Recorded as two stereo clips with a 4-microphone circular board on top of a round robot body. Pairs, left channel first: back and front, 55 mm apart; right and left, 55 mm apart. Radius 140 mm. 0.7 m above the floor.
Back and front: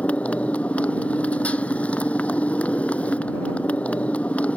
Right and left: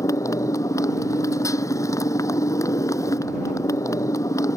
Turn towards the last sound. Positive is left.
turn(degrees=-115)